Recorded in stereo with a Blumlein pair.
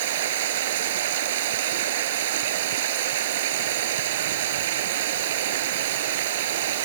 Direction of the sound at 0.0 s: 55° right.